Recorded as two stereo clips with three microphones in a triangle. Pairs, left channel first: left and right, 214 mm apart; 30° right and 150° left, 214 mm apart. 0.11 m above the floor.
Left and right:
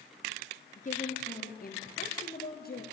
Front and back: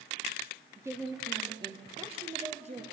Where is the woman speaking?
80° left, 2 m; by 2.8 s 105° left, 2.5 m.